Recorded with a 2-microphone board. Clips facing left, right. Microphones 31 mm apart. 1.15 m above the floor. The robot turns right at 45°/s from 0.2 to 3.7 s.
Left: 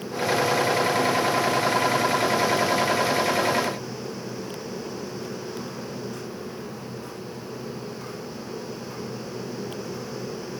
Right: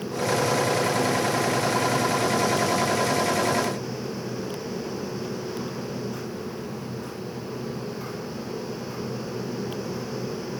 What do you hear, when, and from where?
Only background noise.